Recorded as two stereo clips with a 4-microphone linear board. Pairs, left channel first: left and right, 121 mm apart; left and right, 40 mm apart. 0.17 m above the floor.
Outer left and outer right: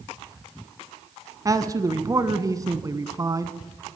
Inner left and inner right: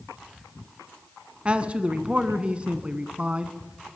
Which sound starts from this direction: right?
A man speaking, at 1.4 s.